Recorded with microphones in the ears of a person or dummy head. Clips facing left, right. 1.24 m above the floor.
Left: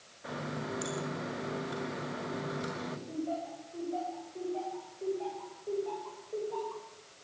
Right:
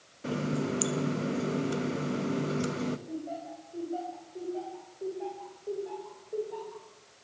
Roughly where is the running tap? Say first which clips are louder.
Right 8 dB; right.